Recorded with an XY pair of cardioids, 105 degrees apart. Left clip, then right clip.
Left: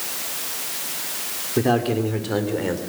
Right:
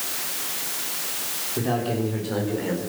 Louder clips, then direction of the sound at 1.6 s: Left 6 dB; 55° left.